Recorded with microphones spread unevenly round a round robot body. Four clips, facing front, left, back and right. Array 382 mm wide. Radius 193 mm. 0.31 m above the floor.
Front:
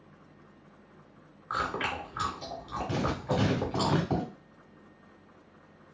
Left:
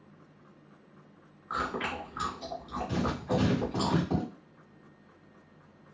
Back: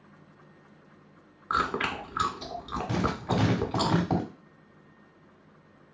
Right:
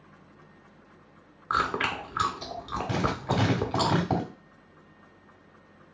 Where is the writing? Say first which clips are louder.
Right 2 dB, back 2 dB; 115° right, 2 m.